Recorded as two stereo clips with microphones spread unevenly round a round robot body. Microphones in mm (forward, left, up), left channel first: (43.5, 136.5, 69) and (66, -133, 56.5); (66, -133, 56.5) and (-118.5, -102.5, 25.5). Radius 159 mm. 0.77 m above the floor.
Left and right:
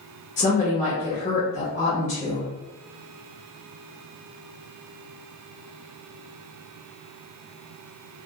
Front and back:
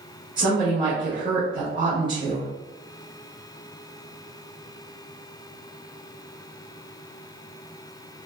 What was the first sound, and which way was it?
A woman speaking, 145° left.